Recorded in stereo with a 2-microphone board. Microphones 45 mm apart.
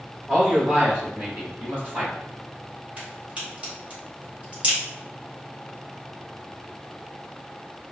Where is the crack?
30° right (ahead or behind), 1.9 m.